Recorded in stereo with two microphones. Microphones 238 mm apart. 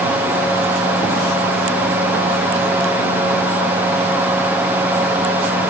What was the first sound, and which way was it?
Only background noise.